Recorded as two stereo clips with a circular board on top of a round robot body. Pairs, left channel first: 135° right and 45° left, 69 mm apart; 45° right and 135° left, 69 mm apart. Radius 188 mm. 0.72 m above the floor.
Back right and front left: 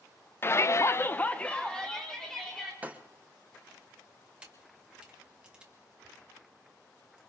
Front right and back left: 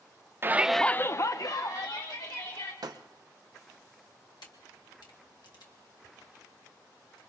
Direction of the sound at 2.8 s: 110° left.